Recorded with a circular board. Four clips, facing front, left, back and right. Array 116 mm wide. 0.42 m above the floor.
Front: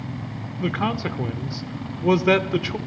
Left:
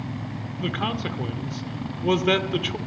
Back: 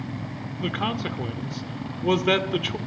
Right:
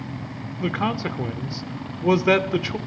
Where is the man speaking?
50° right, 0.7 m.